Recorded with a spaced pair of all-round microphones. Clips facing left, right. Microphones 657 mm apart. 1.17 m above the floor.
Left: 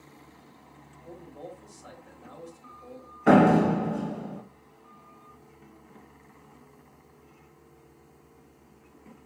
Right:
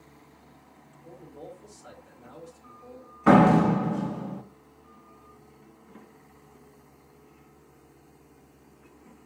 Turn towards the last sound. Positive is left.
turn(degrees=-35)  # may be behind; listen again after turning